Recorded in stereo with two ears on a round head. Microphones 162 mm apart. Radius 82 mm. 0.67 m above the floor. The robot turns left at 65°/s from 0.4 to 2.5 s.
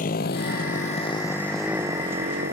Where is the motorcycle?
45° left (ahead or behind); by 2.5 s 50° right (ahead or behind).